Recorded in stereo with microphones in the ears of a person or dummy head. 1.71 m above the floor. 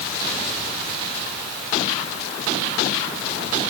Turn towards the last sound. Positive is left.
No sound to turn to.